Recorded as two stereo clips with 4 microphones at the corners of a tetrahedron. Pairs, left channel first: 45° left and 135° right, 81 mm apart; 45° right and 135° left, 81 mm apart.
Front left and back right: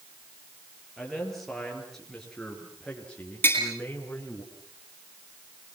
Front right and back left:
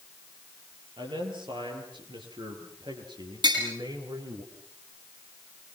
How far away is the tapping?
About 9 m.